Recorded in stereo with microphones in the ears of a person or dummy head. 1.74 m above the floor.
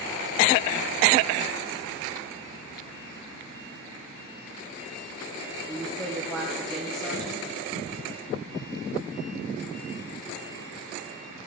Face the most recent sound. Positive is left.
turn(degrees=0)  # may be behind; listen again after turning